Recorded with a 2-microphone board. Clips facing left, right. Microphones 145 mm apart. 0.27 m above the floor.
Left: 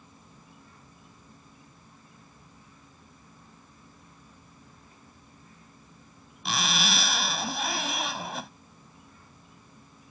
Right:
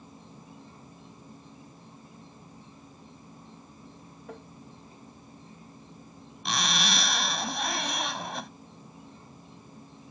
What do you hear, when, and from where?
0.0 s an insect: 25° right (ahead or behind)
4.3 s tapping: 75° right (ahead or behind)
6.5 s a zipper: centre (ahead or behind)